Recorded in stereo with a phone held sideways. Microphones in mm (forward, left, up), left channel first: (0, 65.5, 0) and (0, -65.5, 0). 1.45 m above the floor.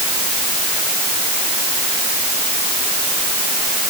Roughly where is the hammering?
I don't hear hammering.